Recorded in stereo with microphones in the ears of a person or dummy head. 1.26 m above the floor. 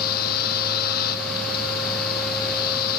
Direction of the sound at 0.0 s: 50° left (ahead or behind).